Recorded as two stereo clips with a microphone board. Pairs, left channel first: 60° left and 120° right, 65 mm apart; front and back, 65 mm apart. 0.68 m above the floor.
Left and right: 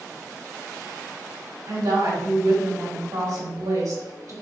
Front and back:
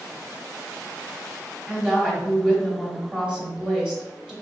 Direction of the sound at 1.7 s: 100° right.